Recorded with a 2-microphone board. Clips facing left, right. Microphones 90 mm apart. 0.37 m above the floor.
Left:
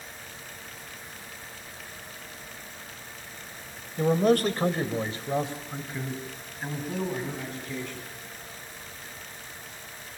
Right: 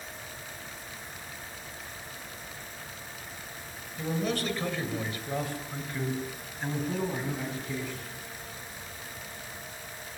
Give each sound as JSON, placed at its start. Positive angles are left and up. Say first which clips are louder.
{"t": 4.0, "sound": "a man speaking", "louder": "left 9 dB", "side_deg": 50, "distance_m": 2.0}